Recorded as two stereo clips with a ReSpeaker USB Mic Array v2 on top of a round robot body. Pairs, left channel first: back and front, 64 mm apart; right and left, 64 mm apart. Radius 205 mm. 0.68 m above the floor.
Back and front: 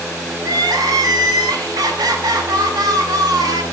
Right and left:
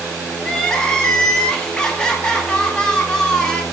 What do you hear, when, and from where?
0.4 s crying: 10° right, 1.0 m